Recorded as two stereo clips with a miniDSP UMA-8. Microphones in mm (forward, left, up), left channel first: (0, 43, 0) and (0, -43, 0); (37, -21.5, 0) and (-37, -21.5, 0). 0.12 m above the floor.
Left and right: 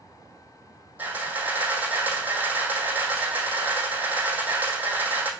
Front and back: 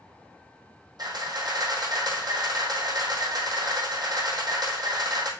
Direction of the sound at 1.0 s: 160° right.